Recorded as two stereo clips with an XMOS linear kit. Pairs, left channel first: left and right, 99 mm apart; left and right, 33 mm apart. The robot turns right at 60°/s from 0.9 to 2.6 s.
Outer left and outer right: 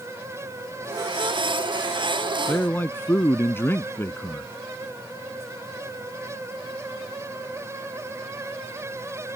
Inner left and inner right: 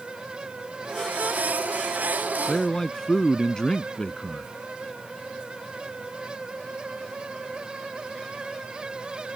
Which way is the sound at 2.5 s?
20° left (ahead or behind).